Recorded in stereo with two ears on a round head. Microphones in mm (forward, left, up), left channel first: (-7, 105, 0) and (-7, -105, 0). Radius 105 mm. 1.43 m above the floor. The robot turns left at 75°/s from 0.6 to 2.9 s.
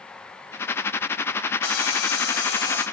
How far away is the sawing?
About 9 m.